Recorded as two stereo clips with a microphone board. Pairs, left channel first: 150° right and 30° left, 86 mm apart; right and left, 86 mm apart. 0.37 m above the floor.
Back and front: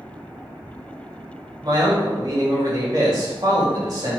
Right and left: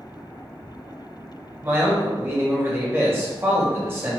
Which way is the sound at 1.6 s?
35° left.